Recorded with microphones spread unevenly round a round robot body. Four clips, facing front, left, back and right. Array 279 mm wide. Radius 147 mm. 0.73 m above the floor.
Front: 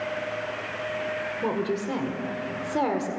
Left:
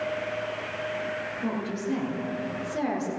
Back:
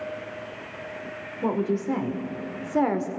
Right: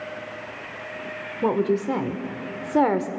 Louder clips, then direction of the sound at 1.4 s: Right 11 dB, back 4 dB; 80° right.